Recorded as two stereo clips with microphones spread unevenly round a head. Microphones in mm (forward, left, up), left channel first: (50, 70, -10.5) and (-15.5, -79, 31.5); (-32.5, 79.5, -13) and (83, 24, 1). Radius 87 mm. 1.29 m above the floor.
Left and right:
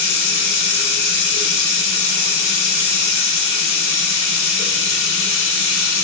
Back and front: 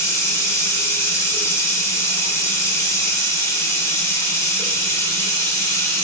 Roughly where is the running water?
Left.